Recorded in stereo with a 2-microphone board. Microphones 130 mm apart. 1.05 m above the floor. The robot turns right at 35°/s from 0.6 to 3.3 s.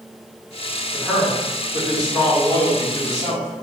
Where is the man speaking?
175° left, 1.6 m; by 3.6 s 100° right, 1.6 m.